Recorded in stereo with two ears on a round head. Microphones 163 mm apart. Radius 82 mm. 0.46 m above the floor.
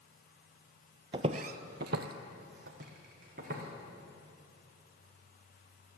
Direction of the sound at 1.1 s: 25° right (ahead or behind).